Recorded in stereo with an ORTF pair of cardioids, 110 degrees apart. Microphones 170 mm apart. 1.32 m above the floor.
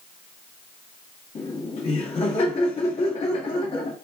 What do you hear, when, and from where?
1.4 s laughter: 35° left, 1.5 m